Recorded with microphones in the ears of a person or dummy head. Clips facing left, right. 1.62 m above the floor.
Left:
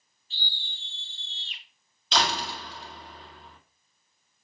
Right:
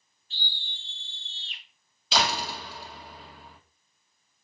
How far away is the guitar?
No guitar in this recording.